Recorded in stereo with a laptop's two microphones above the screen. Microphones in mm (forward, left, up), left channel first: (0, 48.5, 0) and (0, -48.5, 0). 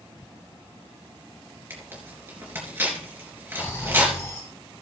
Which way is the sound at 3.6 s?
25° left (ahead or behind).